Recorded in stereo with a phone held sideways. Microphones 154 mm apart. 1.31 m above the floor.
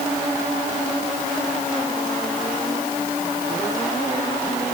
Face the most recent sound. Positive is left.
No sound to turn to.